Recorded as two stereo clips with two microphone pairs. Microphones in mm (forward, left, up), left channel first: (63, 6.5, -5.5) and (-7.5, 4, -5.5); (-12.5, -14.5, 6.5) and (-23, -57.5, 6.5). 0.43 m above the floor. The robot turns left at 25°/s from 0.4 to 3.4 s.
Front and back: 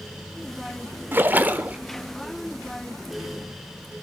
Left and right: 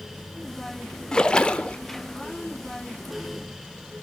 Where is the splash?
140° left, 1.0 m; by 1.8 s 125° left, 1.0 m.